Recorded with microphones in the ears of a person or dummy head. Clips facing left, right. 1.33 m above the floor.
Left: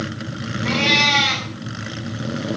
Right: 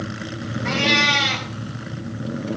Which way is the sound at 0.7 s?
Centre (ahead or behind).